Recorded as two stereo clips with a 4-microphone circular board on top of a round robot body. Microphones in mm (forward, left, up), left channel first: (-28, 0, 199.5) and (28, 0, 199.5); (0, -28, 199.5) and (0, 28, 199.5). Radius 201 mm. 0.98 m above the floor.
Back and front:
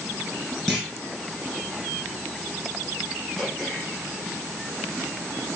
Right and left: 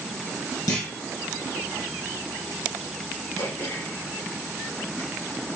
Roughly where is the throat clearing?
Right.